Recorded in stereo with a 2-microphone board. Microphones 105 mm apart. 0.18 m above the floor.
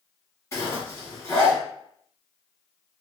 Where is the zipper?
30° left (ahead or behind), 1.2 m.